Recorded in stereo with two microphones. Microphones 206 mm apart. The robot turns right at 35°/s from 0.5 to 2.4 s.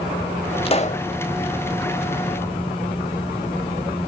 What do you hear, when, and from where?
0.7 s a pop: 30° left (ahead or behind), 1.0 m; by 1.0 s 40° left (ahead or behind), 1.0 m